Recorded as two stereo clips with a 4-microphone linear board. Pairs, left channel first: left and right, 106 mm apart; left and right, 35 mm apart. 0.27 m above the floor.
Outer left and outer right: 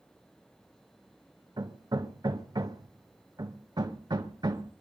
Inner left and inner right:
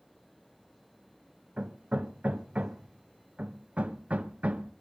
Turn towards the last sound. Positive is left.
turn(degrees=-40)  # may be behind; listen again after turning